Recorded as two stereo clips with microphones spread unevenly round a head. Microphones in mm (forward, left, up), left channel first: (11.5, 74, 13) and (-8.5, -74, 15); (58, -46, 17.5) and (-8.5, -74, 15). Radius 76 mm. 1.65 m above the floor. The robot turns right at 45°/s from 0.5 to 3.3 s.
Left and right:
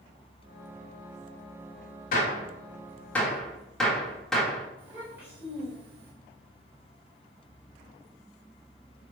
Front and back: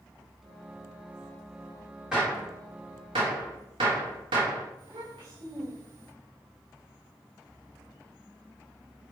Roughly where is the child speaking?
Behind.